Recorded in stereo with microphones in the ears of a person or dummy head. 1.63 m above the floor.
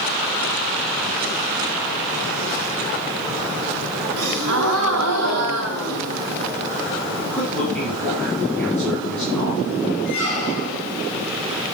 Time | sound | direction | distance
4.2 | a gasp | 70° right (ahead or behind) | 1.8 m
7.2 | a man speaking | centre (ahead or behind) | 3 m
10.1 | a squeak | 50° right (ahead or behind) | 3.5 m